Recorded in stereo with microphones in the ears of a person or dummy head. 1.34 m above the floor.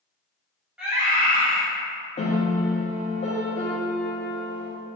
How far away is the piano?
About 0.6 m.